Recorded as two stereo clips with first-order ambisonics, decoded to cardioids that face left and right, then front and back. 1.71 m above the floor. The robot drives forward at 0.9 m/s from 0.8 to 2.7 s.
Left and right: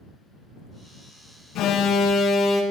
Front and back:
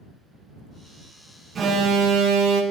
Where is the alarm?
120° left, 0.8 m; by 2.6 s 155° left, 1.5 m.